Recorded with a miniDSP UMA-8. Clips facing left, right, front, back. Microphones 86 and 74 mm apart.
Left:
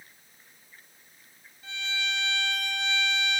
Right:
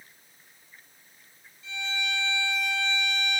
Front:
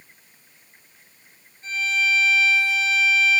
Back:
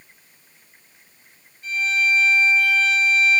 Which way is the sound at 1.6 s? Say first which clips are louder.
Right 1 dB, back 2 dB; 55° left.